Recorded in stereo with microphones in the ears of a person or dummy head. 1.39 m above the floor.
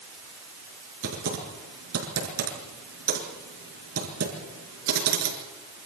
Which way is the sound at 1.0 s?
80° right.